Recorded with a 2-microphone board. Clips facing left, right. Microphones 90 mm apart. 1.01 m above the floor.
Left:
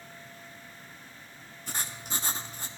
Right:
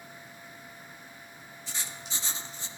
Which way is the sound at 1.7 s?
50° left (ahead or behind).